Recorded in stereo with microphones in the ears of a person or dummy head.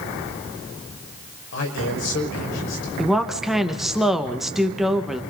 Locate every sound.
1.5 s a man speaking: 65° left (ahead or behind), 5 m
3.0 s a woman speaking: centre (ahead or behind), 1.6 m